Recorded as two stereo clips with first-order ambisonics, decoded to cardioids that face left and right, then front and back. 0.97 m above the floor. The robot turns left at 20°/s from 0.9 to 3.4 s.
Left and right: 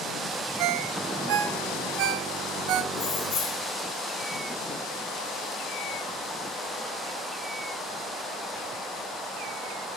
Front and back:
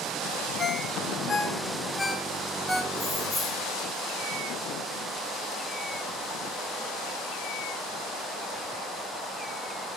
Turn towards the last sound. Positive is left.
turn(degrees=80)